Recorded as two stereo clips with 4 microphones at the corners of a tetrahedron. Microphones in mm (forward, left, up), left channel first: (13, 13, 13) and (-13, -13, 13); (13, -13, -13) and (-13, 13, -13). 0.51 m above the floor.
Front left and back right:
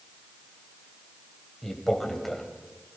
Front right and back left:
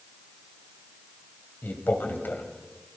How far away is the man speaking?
About 2.5 m.